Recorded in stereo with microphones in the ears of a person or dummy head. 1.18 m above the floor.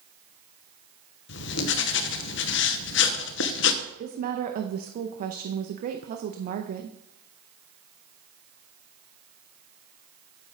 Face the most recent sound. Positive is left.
turn(degrees=-45)  # may be behind; listen again after turning